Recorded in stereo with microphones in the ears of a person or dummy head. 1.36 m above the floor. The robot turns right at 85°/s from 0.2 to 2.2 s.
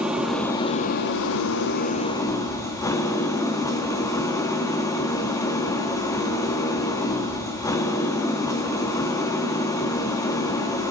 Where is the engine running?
10° right, 1.3 m; by 10.9 s 160° left, 1.3 m.